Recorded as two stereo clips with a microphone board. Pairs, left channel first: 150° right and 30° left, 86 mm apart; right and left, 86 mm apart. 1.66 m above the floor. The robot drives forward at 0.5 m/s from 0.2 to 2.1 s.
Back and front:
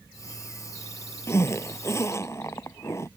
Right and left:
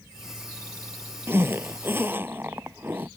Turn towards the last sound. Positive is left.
turn(degrees=155)